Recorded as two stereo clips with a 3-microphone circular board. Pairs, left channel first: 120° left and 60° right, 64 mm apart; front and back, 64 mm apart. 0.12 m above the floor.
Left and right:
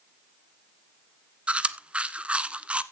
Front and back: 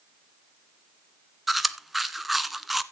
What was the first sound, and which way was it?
Chewing, 95° right.